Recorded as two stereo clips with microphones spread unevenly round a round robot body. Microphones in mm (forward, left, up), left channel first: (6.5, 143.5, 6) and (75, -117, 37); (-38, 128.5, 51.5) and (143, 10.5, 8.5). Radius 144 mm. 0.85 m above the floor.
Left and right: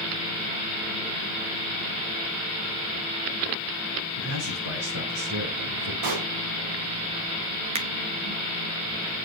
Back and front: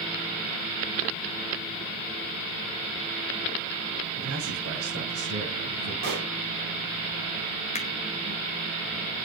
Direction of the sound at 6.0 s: 90° right.